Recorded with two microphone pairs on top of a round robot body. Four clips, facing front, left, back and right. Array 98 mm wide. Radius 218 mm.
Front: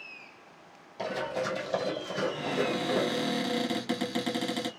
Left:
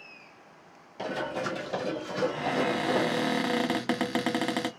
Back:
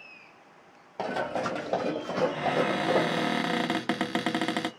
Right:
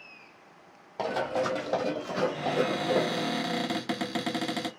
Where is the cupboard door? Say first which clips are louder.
Even, back 3 dB; 150° left, 1.3 m.